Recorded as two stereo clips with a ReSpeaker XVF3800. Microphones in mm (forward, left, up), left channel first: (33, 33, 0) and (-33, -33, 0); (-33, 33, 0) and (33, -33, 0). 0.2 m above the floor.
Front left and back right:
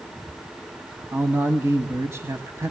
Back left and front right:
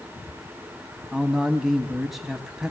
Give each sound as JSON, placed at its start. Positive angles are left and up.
{"t": 1.1, "sound": "a man speaking", "azimuth_deg": -130, "distance_m": 1.1}